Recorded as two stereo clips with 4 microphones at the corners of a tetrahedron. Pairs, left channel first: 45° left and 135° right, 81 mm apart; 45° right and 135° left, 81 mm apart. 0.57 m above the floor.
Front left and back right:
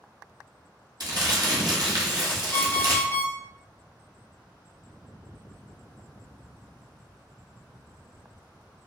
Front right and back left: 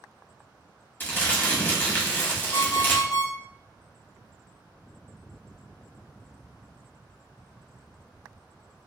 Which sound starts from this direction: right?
Crumpling, at 1.0 s.